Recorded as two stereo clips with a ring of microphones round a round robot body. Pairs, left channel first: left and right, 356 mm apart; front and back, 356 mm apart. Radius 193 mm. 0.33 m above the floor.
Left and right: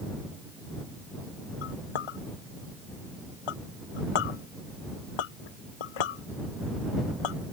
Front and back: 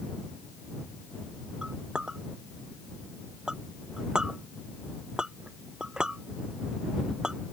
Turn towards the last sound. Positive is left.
turn(degrees=90)